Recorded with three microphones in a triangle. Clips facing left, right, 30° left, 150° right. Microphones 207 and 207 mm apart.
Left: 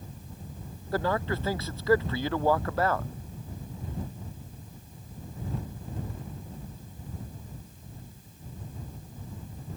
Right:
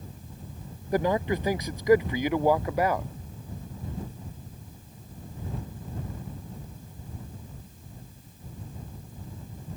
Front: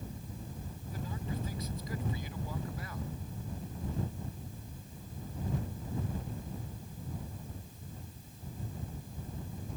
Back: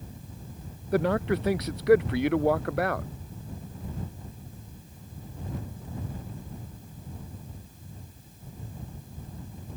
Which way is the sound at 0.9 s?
165° right.